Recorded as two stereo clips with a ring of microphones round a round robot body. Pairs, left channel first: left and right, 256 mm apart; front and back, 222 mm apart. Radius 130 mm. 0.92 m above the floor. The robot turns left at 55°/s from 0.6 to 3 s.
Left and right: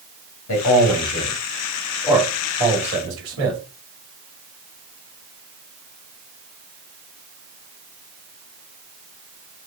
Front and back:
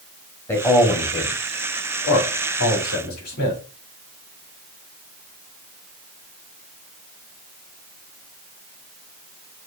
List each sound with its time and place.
0.5 s a man speaking: 80° left, 2 m; by 3.6 s 50° right, 2 m